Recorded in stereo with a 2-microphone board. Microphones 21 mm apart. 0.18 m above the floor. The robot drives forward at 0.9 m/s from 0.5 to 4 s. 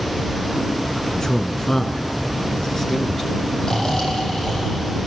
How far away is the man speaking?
About 1.9 m.